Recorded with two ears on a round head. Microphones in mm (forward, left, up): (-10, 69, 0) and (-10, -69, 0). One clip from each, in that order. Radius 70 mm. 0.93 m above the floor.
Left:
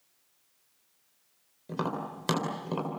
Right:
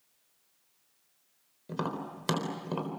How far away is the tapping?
About 4 m.